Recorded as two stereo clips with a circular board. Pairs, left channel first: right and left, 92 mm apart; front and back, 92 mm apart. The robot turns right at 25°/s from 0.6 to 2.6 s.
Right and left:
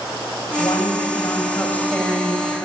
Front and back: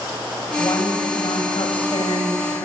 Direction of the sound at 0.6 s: 45° right.